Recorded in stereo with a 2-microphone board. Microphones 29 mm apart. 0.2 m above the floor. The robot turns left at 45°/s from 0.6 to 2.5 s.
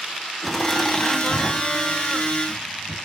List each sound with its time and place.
0.4 s laughter: centre (ahead or behind), 1.5 m; by 3.0 s 20° left (ahead or behind), 1.5 m